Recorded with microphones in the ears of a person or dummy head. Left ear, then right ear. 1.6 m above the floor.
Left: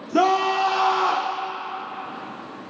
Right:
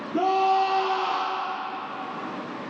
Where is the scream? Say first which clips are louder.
Left 2 dB; 70° left (ahead or behind), 1.3 m.